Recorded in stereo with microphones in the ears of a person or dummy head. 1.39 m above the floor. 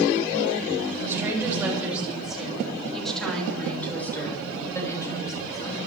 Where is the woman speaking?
5° right (ahead or behind), 6.5 m; by 5.8 s 30° left (ahead or behind), 6 m.